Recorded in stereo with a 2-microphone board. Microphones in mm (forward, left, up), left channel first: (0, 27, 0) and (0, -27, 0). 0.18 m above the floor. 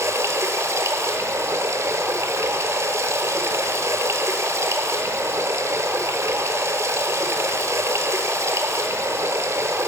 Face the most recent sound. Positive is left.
turn(degrees=-65)  # may be behind; listen again after turning